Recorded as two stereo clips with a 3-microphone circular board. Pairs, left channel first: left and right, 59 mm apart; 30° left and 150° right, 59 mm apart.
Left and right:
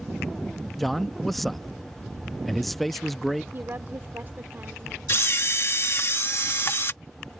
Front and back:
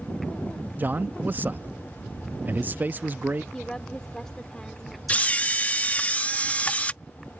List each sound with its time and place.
0.8 s a man speaking: 175° left
3.5 s a woman speaking: 45° right
5.1 s a camera shutter: 85° left